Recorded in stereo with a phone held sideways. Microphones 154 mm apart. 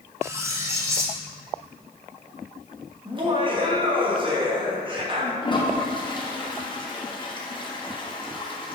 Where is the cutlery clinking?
20° right (ahead or behind), 0.9 m.